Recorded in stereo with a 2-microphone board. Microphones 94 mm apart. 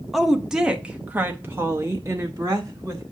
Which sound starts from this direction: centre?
A woman speaking, at 0.1 s.